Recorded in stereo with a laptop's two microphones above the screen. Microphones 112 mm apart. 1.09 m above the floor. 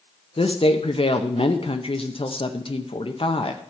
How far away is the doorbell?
No doorbell in this recording.